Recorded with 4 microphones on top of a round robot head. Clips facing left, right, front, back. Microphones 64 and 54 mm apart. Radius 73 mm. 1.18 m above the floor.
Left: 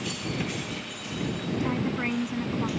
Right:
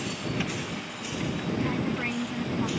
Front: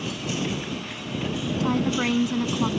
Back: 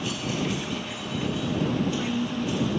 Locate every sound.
1.6 s a woman speaking: 10° left; by 2.7 s 5° left